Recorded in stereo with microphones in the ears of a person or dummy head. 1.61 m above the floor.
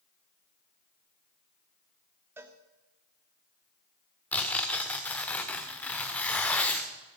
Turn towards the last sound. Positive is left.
turn(degrees=10)  # may be behind; listen again after turning